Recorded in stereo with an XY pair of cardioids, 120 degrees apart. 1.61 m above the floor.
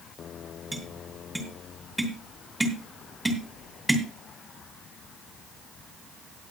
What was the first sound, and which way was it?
Tapping, 5° right.